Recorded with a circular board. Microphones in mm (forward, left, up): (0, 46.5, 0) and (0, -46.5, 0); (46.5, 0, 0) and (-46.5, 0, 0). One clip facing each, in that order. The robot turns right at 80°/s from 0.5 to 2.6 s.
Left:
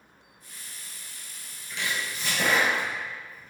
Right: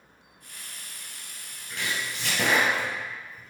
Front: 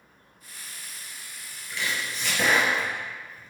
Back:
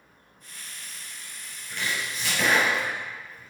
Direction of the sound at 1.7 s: 140° right.